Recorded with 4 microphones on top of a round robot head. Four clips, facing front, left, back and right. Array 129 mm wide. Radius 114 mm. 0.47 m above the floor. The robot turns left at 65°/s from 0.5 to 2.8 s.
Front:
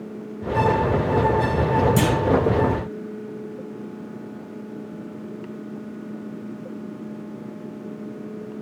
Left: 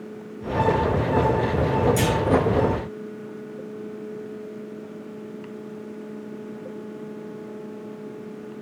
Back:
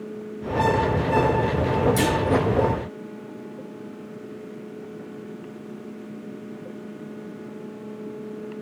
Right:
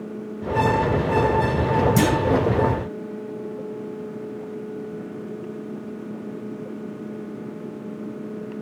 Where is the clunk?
55° right, 1.8 m; by 2.1 s 65° right, 1.8 m.